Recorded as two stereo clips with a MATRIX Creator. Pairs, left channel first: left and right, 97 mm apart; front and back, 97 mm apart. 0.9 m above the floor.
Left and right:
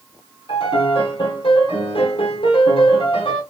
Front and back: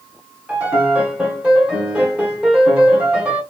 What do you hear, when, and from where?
0.5 s a piano: 105° left, 1.2 m